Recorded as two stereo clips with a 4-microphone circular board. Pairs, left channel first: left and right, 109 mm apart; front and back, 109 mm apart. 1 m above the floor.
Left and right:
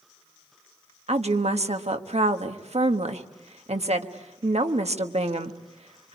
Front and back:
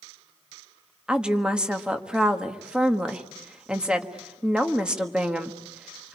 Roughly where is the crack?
No crack in this recording.